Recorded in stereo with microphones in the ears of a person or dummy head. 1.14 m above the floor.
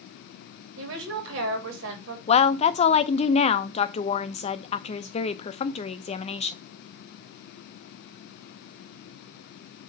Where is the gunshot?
I don't hear a gunshot.